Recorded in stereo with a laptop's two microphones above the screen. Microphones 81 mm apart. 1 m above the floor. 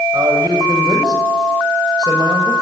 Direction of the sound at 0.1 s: 50° right (ahead or behind).